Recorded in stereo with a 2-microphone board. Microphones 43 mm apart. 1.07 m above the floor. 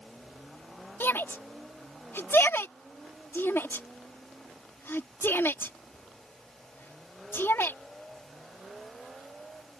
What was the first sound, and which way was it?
A shout, 70° left (ahead or behind).